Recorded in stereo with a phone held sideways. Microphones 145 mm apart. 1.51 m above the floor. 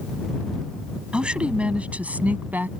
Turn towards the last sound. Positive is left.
turn(degrees=-10)  # may be behind; listen again after turning